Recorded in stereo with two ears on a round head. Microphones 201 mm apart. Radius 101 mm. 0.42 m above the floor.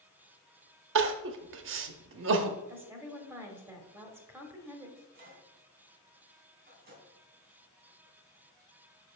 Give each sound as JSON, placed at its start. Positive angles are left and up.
{"t": 0.9, "sound": "crying", "side_deg": -55, "distance_m": 0.7}
{"t": 2.7, "sound": "a woman speaking", "side_deg": -10, "distance_m": 1.2}
{"t": 5.0, "sound": "a microwave", "side_deg": -45, "distance_m": 3.0}